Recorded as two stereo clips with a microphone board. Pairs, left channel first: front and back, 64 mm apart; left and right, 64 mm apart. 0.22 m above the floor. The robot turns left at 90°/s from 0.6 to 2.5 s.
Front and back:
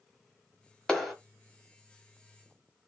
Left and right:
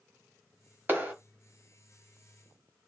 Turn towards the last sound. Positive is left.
turn(degrees=145)